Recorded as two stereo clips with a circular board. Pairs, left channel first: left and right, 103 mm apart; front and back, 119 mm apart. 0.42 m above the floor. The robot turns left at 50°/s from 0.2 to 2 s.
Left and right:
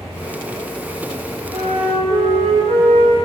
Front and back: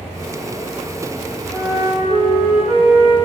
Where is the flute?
90° right, 8 m; by 3.1 s 110° right, 8 m.